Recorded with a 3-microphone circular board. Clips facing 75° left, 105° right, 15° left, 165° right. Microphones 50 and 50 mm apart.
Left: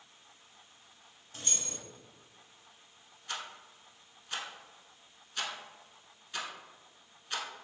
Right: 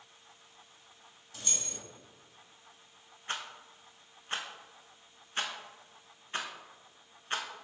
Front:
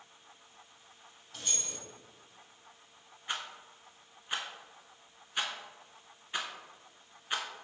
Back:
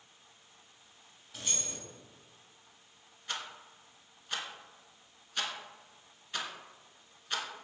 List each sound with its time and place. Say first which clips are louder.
1.3 s keys jangling: left 1 dB, back 1 dB; 110° left, 1.3 m
3.3 s a rattle: right 2 dB, front 2 dB; 55° right, 0.6 m